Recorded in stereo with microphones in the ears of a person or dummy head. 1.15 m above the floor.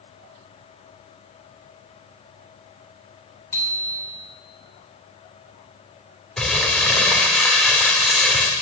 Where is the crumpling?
5° left (ahead or behind), 1.9 m.